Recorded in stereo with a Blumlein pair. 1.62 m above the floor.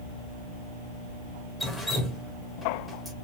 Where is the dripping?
5° left, 0.8 m.